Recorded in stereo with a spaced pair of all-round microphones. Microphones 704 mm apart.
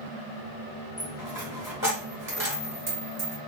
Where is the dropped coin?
20° right (ahead or behind), 1.8 m.